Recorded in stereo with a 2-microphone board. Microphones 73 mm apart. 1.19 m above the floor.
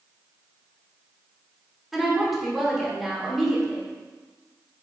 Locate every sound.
1.9 s a woman speaking: centre (ahead or behind), 2.5 m